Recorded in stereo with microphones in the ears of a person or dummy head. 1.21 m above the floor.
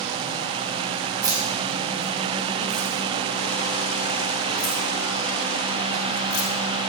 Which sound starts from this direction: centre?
Keys jangling, at 1.2 s.